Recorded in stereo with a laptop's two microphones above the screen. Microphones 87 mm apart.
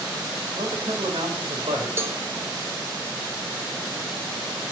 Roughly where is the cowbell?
Right.